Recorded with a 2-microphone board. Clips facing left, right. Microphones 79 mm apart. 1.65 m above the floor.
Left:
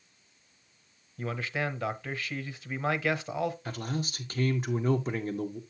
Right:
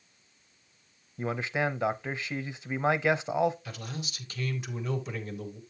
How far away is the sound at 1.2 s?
About 0.8 m.